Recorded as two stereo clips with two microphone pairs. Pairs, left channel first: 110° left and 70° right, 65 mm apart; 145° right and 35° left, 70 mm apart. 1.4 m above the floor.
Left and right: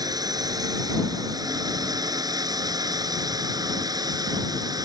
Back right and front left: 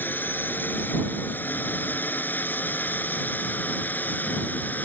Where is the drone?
80° right.